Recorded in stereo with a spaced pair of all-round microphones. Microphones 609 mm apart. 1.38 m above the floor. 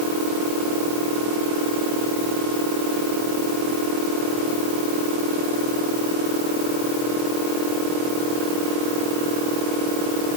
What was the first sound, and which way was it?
Only background noise.